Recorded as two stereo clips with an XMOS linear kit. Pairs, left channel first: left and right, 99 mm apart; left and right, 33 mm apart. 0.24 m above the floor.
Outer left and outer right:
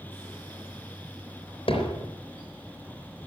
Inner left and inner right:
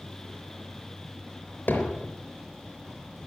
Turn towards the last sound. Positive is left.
turn(degrees=65)  # may be behind; listen again after turning